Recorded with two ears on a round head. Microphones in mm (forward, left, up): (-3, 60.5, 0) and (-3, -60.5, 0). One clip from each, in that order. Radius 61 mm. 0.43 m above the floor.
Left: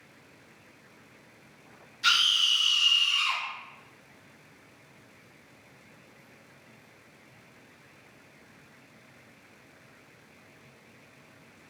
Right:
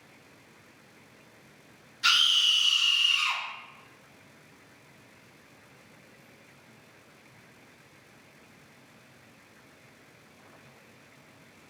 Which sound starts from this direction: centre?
A scream, at 2.0 s.